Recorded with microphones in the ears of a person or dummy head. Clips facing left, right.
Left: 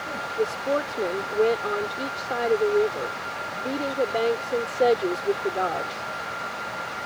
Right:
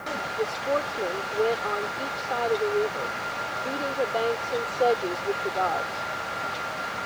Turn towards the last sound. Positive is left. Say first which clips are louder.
# left 3 dB
turn(degrees=20)  # may be behind; listen again after turning